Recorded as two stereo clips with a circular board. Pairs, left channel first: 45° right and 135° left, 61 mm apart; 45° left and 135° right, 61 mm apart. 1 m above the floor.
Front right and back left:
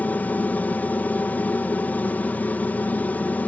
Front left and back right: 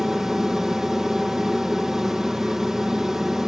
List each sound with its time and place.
0.0 s an aircraft: 60° right